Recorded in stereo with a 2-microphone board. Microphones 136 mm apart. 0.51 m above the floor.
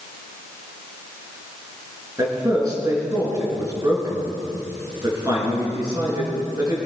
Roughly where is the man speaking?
Right.